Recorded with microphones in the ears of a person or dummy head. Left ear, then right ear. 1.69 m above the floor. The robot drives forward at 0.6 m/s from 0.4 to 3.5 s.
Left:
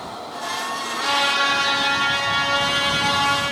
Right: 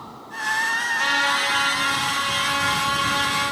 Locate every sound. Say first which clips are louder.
0.9 s a trumpet: left 3 dB; 35° right (ahead or behind), 1.0 m; by 3.4 s 15° right (ahead or behind), 2.5 m